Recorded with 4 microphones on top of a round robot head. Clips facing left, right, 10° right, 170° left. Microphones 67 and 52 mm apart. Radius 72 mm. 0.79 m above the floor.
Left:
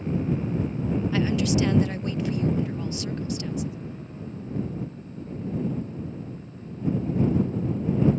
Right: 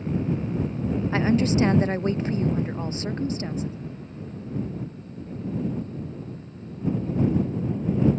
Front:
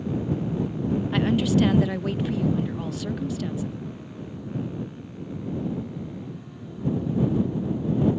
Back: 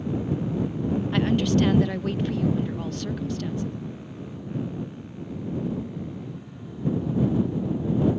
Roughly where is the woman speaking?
Right.